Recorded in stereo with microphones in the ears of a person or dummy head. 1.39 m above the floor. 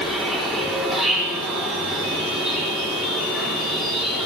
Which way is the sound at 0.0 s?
Centre (ahead or behind).